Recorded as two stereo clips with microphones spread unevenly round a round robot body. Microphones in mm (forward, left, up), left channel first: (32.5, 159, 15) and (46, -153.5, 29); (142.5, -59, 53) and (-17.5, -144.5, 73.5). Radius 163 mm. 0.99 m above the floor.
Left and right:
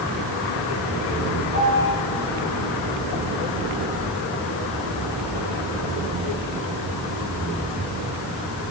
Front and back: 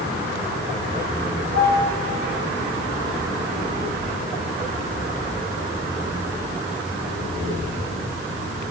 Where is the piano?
145° right, 2 m.